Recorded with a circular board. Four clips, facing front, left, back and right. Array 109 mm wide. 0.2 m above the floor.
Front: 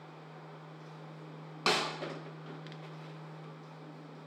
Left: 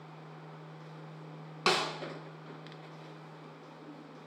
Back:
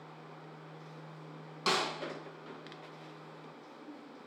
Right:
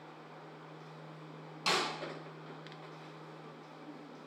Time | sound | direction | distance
1.7 | a snare drum | 65° left | 0.6 m